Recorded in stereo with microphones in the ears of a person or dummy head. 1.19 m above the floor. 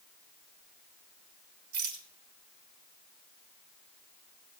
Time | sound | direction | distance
1.7 | a rattle | 55° right (ahead or behind) | 2.5 m